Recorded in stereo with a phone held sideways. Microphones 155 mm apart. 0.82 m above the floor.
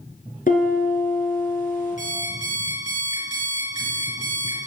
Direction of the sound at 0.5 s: 65° left (ahead or behind).